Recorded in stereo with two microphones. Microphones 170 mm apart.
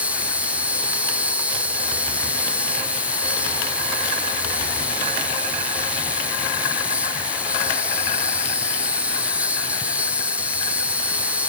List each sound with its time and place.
0.0 s an insect: 10° right (ahead or behind)